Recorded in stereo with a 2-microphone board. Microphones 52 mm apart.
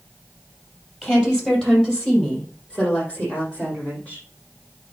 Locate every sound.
1.0 s a woman speaking: 10° left (ahead or behind), 4 m; by 4.2 s 25° left (ahead or behind), 6.5 m